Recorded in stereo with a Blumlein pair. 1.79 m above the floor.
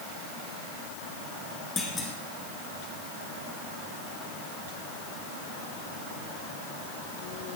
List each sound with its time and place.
1.8 s a clunk: 15° left, 2.5 m